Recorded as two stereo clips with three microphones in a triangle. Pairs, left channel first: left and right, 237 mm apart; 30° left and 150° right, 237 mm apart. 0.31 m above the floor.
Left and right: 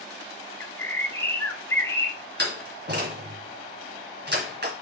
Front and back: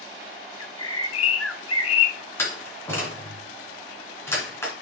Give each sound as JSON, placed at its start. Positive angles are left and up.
{"t": 0.6, "sound": "a bird", "azimuth_deg": 10, "distance_m": 0.8}
{"t": 2.4, "sound": "a door slam", "azimuth_deg": -50, "distance_m": 2.5}